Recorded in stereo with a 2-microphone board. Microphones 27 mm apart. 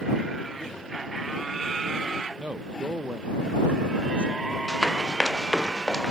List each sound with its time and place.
2.4 s a man speaking: 75° right (ahead or behind)
4.7 s running footsteps: 10° left (ahead or behind); by 6.1 s 25° left (ahead or behind)